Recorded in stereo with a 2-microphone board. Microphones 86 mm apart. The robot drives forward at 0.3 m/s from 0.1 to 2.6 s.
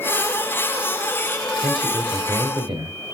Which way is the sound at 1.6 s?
75° right (ahead or behind).